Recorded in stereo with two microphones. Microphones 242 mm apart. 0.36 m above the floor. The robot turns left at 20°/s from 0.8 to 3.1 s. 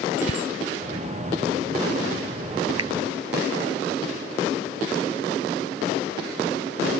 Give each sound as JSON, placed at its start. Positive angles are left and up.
{"t": 0.2, "sound": "a bicycle bell", "side_deg": 65}
{"t": 2.8, "sound": "a finger snap", "side_deg": -75}